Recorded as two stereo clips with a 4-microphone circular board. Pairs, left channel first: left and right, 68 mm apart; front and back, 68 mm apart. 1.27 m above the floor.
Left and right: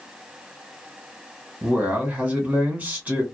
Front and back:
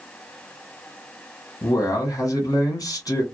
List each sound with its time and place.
1.6 s a man speaking: 25° right, 1.5 m